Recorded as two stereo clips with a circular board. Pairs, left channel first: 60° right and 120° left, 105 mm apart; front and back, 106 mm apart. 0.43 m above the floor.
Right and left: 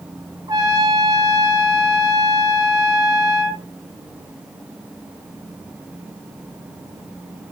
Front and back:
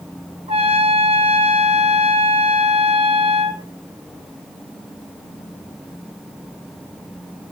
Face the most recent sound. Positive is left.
turn(degrees=175)